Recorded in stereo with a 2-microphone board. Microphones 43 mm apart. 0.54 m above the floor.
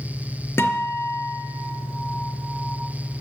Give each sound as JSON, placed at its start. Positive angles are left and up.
{"t": 0.6, "sound": "a guitar", "side_deg": 70, "distance_m": 3.5}